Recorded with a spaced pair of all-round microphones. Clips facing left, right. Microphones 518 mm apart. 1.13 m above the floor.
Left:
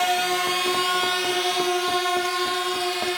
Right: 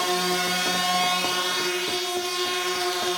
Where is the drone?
60° right (ahead or behind); by 3.2 s 65° right (ahead or behind).